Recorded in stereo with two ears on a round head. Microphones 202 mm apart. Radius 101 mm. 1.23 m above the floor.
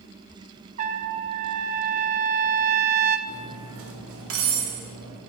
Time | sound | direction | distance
0.8 | a trumpet | 35° right (ahead or behind) | 0.5 m
3.3 | cutlery clinking | 65° right (ahead or behind) | 1.9 m